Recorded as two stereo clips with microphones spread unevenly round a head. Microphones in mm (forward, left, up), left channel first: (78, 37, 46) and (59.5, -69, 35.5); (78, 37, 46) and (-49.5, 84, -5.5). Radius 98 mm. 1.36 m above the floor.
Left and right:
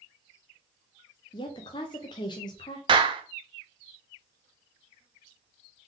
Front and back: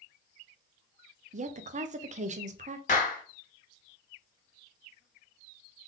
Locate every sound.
1.3 s a woman speaking: 140° left, 0.7 m
2.9 s a clap: 60° right, 0.8 m